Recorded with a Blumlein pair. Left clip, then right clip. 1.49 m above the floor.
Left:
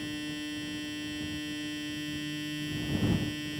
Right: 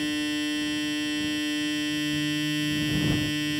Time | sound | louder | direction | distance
0.0 | a machine running | right 9 dB | 65° right | ?